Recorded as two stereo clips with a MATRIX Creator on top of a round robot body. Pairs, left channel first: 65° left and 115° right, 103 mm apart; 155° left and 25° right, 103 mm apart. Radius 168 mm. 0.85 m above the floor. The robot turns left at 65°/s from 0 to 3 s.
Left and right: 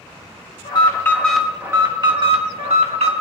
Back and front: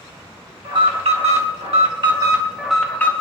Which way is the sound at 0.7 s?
25° left.